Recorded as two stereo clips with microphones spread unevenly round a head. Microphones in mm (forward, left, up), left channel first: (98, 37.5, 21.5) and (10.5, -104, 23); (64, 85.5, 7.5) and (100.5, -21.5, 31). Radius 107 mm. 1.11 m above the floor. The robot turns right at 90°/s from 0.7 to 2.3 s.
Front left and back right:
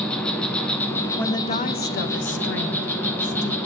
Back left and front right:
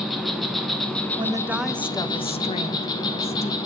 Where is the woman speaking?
25° right, 0.9 m; by 3.6 s 75° left, 0.9 m.